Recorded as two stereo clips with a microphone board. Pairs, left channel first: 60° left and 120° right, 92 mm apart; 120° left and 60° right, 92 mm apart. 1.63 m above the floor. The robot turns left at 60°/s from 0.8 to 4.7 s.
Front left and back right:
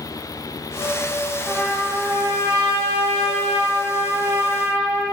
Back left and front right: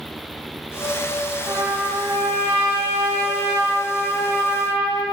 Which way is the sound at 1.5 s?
20° right.